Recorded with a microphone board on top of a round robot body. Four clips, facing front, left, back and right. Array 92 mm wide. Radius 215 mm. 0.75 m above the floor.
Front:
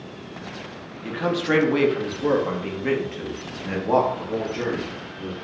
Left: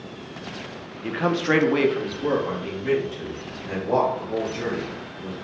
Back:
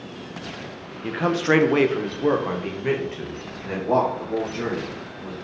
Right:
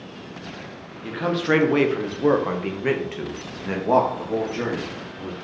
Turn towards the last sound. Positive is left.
turn(degrees=-80)